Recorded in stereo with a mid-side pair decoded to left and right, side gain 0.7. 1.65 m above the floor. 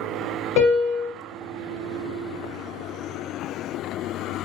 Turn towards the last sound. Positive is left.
turn(degrees=60)